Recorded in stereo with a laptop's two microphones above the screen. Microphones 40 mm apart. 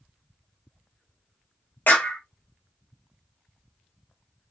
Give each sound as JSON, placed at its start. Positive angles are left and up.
{"t": 1.9, "sound": "a clap", "side_deg": 50, "distance_m": 1.4}